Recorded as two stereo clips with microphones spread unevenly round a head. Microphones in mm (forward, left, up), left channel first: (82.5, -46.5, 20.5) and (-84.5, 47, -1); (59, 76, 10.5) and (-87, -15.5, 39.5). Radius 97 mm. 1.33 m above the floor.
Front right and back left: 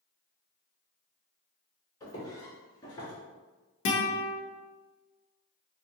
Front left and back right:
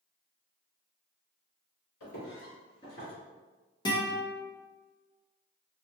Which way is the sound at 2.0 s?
30° left.